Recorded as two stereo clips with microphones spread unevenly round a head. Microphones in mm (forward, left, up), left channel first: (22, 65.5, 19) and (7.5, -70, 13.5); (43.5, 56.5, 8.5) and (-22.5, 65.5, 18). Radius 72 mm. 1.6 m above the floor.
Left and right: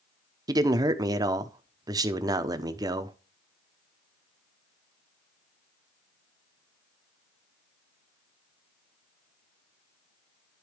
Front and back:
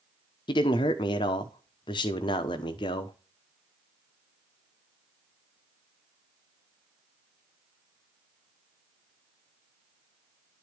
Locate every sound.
0.5 s a man speaking: 30° right, 0.8 m